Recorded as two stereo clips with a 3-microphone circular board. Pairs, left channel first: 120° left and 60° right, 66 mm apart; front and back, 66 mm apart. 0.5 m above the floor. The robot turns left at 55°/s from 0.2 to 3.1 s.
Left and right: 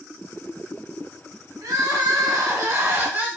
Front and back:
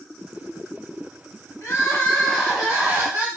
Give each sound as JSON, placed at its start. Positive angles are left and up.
{"t": 1.6, "sound": "crying", "azimuth_deg": -40, "distance_m": 1.2}